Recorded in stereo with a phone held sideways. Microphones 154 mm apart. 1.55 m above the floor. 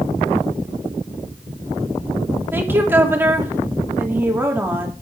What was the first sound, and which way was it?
A woman speaking, 15° right (ahead or behind).